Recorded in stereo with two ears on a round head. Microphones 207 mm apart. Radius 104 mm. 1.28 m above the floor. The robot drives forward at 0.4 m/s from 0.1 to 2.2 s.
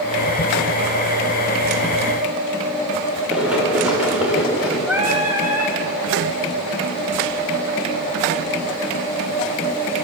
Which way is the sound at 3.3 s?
5° right (ahead or behind).